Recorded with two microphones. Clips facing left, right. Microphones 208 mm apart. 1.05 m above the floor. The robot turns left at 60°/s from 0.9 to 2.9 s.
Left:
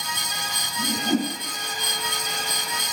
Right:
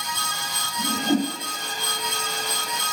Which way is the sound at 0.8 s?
10° right (ahead or behind).